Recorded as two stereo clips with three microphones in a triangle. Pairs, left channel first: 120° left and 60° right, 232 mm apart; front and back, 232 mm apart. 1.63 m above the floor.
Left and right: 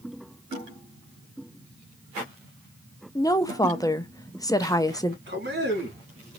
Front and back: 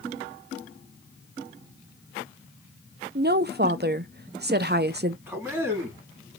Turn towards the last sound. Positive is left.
turn(degrees=-100)